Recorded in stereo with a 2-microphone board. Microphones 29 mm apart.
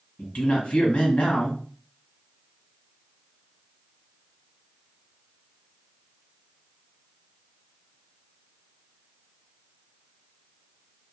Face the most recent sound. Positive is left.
turn(degrees=45)  # may be behind; listen again after turning